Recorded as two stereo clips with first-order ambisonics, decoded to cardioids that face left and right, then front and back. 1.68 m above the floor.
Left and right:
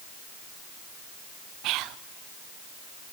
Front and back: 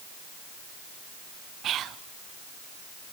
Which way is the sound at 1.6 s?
125° right.